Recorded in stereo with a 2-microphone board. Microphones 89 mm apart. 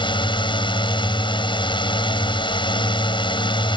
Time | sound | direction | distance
0.0 | a drone | 65° left (ahead or behind) | ?